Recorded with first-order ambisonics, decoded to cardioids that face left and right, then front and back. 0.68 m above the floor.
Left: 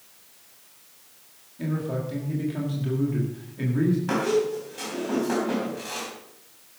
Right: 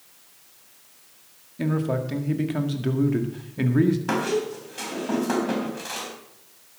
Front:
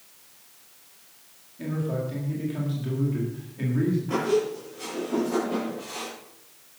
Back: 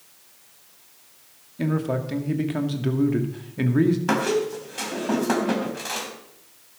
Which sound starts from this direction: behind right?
A man speaking, at 1.6 s.